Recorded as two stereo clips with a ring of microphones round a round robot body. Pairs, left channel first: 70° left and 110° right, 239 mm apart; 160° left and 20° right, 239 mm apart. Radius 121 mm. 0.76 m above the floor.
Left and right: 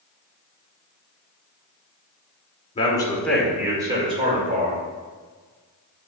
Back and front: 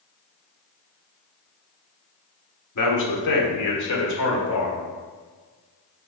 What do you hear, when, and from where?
2.8 s a man speaking: 135° left, 2.0 m; by 4.9 s 165° right, 3 m